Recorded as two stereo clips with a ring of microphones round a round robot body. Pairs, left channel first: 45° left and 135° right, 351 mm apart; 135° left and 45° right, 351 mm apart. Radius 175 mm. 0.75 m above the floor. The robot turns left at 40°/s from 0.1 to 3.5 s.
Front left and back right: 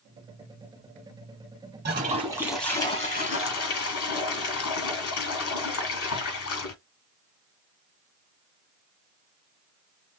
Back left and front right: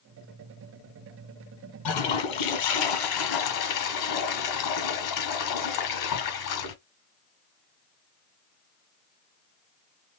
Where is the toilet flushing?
165° left, 1.4 m; by 6.8 s 95° left, 1.4 m.